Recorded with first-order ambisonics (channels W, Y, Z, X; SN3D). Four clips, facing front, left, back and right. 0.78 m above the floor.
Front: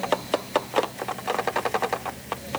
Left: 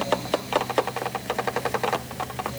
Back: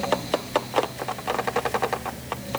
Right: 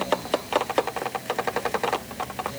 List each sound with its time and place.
Only background noise.